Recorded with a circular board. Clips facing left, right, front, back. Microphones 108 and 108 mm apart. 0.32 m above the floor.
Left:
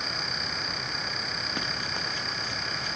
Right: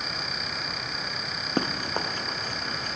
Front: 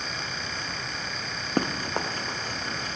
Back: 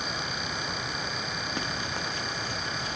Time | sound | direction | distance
1.6 | running footsteps | 40° right | ?